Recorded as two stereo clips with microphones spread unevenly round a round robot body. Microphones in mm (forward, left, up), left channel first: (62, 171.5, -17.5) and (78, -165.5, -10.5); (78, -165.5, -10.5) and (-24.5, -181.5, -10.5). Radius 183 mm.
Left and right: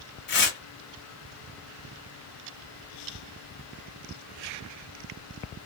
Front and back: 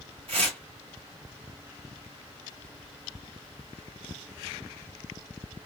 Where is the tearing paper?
150° left, 1.1 m.